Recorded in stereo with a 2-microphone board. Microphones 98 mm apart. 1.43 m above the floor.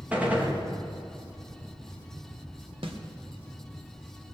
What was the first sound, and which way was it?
A gunshot, 15° right (ahead or behind).